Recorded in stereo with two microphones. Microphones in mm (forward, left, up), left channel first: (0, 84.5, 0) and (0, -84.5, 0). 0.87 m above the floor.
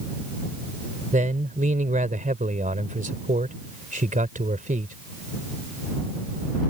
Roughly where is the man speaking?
Right.